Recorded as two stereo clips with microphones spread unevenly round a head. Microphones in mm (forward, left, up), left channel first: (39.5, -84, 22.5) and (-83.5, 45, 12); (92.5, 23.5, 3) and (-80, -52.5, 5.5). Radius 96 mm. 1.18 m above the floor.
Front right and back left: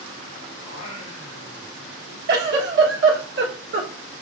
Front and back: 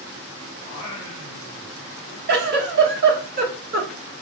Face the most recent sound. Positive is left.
turn(degrees=160)